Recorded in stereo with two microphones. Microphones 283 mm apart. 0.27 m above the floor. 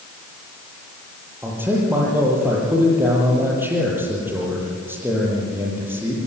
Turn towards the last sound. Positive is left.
turn(degrees=-10)  # may be behind; listen again after turning